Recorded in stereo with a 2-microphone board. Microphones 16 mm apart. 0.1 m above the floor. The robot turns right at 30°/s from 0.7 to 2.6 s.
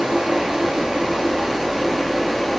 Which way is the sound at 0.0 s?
60° right.